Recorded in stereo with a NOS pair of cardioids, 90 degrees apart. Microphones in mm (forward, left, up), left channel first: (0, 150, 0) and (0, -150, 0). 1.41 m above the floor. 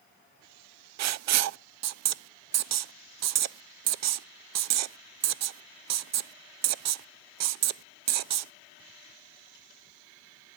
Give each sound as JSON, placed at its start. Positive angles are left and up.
{"t": 1.0, "sound": "writing", "azimuth_deg": -60, "distance_m": 0.6}